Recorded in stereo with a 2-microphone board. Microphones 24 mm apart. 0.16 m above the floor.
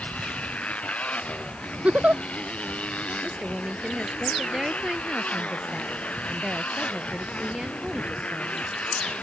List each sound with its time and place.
0.0 s a motorcycle: 70° left (ahead or behind)
1.8 s a giggle: 70° right (ahead or behind)
3.2 s a woman speaking: 25° right (ahead or behind)